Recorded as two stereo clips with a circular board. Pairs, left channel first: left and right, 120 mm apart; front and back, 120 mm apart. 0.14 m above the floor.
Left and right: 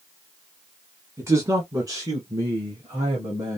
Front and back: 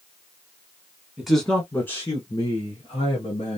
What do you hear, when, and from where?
1.2 s a man speaking: 100° right, 1.1 m; by 3.6 s 30° right, 2 m